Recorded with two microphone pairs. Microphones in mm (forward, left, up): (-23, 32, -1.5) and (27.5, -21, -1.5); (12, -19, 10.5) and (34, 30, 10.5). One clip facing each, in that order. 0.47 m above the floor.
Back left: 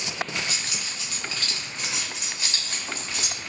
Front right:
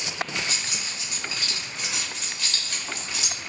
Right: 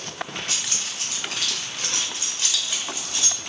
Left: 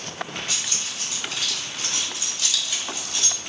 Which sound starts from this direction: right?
Keys jangling, at 0.5 s.